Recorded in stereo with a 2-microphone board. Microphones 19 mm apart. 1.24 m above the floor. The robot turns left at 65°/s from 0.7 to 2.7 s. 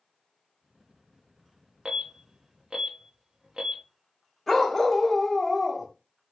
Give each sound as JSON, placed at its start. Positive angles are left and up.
{"t": 1.9, "sound": "an alarm", "side_deg": -60, "distance_m": 0.7}
{"t": 4.5, "sound": "a dog barking", "side_deg": 5, "distance_m": 0.9}